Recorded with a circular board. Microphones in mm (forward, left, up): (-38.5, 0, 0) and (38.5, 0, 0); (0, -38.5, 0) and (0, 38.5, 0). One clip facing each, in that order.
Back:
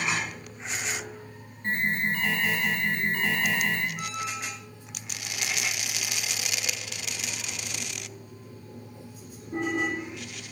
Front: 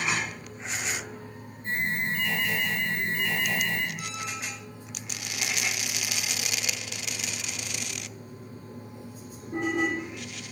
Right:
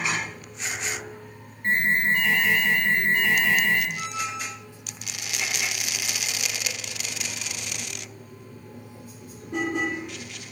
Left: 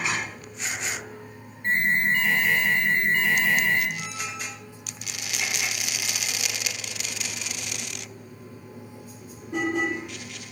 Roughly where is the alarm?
Behind.